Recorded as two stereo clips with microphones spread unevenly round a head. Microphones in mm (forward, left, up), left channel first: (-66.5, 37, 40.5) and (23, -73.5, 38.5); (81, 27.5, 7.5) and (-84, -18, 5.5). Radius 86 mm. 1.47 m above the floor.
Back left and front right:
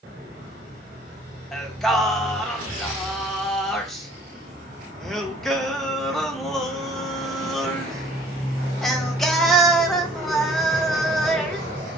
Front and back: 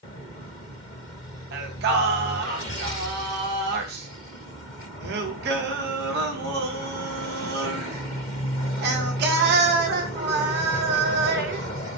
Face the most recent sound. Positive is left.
turn(degrees=-145)